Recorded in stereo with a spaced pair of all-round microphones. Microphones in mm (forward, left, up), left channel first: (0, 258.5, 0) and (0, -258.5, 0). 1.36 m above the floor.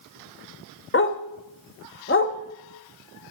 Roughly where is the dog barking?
Left.